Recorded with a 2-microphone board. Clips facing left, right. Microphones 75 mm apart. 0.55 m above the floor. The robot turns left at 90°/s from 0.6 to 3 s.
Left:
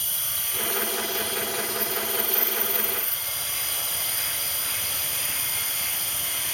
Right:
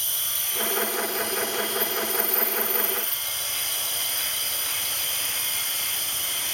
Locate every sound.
0.0 s an insect: 95° right, 5 m; by 6.5 s 45° left, 5 m